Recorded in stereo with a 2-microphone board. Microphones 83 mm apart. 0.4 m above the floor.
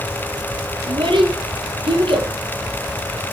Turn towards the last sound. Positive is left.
turn(degrees=-85)